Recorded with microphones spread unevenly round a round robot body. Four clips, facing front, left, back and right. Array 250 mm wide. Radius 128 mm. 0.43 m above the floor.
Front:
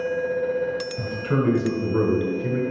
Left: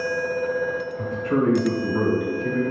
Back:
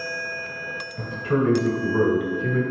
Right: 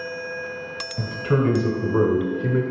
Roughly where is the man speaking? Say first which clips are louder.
Right 2 dB, back 4 dB; right.